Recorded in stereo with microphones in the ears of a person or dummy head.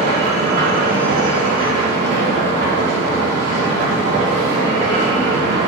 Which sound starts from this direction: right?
A machine running, at 0.0 s.